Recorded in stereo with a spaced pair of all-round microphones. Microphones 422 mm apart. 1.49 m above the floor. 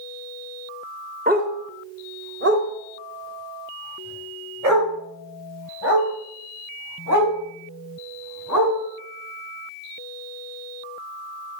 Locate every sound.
1.3 s a dog barking: 20° right (ahead or behind), 1.1 m; by 8.8 s 45° right (ahead or behind), 5.5 m